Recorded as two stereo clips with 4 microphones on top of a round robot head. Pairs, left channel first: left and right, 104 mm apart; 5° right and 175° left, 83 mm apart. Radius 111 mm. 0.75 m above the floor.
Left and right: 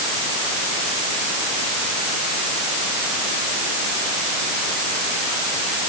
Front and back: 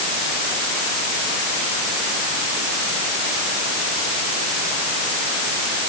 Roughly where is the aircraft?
No aircraft in this recording.